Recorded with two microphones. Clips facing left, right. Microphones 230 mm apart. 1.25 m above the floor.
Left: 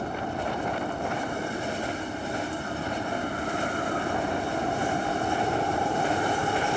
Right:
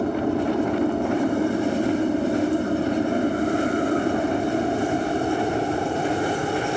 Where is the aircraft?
65° right (ahead or behind); by 6.8 s 20° right (ahead or behind).